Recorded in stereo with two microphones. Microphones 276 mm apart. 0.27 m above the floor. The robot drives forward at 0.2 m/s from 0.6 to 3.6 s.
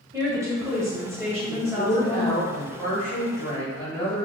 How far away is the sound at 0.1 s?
About 1.0 m.